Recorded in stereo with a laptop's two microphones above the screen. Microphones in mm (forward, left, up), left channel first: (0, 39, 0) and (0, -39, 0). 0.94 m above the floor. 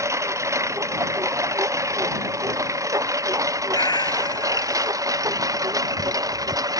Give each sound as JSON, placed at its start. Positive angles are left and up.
{"t": 0.0, "sound": "a lawn mower", "side_deg": -40}
{"t": 3.7, "sound": "a cat meowing", "side_deg": 65}